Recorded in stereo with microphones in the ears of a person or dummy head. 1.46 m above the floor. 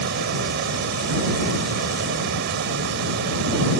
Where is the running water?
65° right (ahead or behind).